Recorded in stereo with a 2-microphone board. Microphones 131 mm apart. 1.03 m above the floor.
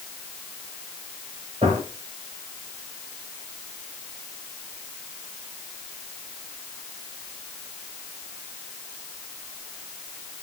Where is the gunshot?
50° right (ahead or behind), 5 m.